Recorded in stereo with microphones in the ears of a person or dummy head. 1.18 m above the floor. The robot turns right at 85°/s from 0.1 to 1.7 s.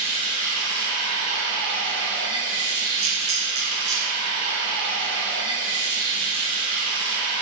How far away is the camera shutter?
About 0.6 m.